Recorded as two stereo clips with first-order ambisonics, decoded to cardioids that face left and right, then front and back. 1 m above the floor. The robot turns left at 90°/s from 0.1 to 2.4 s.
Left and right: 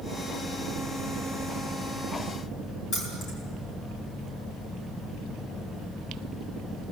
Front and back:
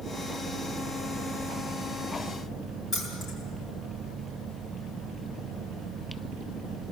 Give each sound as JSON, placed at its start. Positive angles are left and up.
{"t": 2.9, "sound": "keys jangling", "azimuth_deg": 65, "distance_m": 8.0}